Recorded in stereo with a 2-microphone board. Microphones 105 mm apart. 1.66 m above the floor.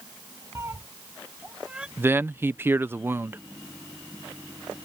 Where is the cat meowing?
30° right (ahead or behind); by 1.9 s 5° right (ahead or behind).